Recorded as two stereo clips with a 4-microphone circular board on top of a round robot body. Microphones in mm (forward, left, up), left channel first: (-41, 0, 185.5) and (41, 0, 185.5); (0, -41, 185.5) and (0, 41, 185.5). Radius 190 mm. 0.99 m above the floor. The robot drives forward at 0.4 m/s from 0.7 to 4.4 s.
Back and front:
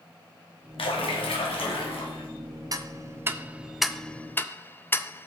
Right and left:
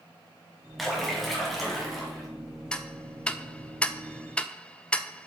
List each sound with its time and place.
0.8 s a splash: straight behind, 1.3 m
2.7 s ticking: 15° right, 0.8 m; by 5.3 s 150° right, 0.7 m